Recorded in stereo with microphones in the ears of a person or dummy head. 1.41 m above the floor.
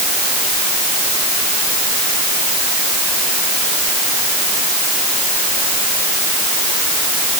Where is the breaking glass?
No breaking glass in this recording.